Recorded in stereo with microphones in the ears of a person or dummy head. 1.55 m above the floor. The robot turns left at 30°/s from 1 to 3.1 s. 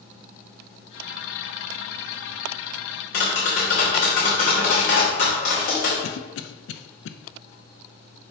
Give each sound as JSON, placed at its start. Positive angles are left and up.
{"t": 3.1, "sound": "tapping", "side_deg": 40, "distance_m": 1.3}
{"t": 6.0, "sound": "a cough", "side_deg": 75, "distance_m": 0.6}